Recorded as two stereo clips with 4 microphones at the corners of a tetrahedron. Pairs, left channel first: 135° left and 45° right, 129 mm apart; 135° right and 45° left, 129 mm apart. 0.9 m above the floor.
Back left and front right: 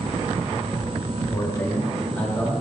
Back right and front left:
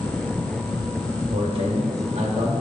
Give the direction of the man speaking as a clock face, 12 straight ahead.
9 o'clock.